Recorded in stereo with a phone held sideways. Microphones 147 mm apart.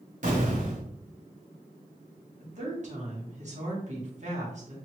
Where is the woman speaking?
55° right (ahead or behind), 1.4 m.